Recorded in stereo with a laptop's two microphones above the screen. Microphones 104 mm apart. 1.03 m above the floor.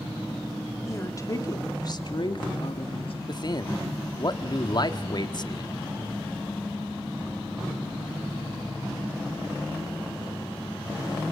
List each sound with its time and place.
0.9 s a woman speaking: 25° left (ahead or behind), 3 m; by 3.1 s 65° left (ahead or behind), 2.5 m
3.3 s a man speaking: 45° left (ahead or behind), 1.6 m